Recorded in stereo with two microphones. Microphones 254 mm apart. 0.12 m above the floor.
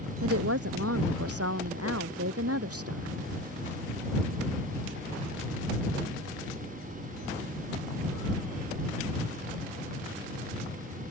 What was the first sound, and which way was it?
A woman speaking, 65° right (ahead or behind).